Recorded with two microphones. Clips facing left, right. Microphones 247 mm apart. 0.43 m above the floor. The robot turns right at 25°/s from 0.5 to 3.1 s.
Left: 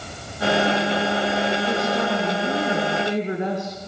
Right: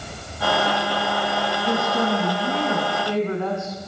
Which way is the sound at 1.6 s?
20° right.